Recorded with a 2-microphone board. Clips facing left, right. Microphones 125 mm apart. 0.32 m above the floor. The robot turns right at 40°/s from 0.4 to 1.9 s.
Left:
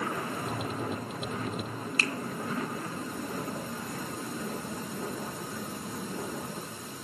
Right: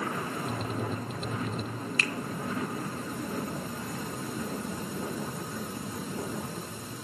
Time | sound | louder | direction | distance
2.0 | a finger snap | left 2 dB | 35° left (ahead or behind) | 0.8 m